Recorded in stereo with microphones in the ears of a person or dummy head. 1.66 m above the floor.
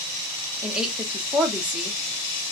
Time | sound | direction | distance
0.6 | a woman speaking | 5° right (ahead or behind) | 1.0 m